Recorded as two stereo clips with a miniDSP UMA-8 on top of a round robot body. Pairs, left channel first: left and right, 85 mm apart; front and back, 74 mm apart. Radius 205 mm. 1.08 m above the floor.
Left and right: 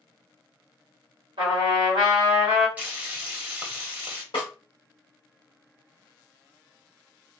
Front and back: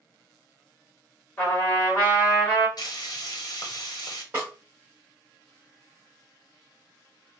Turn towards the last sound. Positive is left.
turn(degrees=110)